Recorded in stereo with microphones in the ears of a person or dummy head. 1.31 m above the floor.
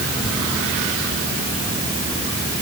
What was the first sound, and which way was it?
Only background noise.